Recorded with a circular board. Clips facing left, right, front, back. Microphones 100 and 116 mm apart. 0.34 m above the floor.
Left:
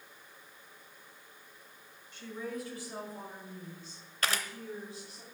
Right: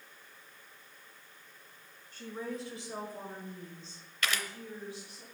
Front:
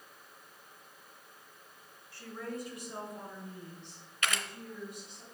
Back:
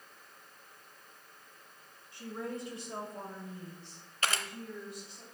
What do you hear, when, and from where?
2.1 s a woman speaking: 115° right, 1.7 m; by 5.2 s 125° left, 2 m
4.2 s a camera shutter: 130° left, 0.6 m